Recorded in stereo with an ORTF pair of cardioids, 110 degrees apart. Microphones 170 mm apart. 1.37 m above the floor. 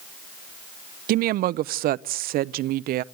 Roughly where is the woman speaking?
Ahead right.